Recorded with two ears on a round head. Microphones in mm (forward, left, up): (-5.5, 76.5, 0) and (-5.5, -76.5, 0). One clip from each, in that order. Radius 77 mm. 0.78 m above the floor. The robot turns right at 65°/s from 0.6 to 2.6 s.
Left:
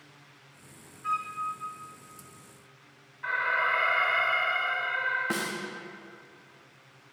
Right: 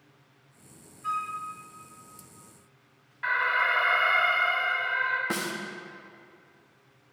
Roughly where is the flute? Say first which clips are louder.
Even; centre.